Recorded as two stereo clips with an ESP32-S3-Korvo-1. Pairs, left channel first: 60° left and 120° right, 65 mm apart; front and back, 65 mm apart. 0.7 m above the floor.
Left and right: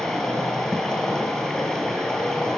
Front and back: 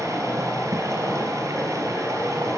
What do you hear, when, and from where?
0.0 s running water: 140° left, 5.5 m